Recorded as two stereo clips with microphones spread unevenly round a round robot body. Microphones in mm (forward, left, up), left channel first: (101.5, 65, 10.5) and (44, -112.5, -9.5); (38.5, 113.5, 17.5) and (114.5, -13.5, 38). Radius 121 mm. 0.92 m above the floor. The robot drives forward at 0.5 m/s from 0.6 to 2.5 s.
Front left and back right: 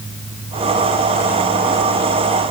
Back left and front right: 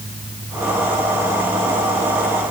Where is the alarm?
I don't hear an alarm.